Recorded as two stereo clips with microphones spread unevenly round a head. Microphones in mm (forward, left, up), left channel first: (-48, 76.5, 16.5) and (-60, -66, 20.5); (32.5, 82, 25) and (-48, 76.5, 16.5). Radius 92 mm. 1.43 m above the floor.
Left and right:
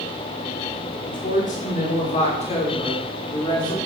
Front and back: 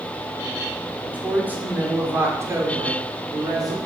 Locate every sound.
1.0 s a woman speaking: 110° left, 6 m; by 3.8 s 145° left, 5.5 m